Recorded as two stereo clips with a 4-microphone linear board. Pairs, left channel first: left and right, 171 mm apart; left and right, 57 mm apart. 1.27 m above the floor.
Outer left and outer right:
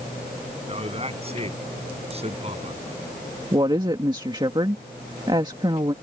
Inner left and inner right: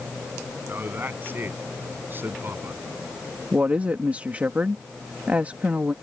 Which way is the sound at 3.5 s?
30° right (ahead or behind).